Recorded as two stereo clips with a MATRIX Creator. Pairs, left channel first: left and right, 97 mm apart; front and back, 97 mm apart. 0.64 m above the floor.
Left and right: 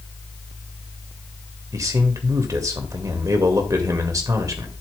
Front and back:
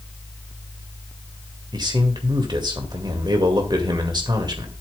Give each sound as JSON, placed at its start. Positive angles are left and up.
{"t": 1.7, "sound": "a man speaking", "azimuth_deg": -140, "distance_m": 1.9}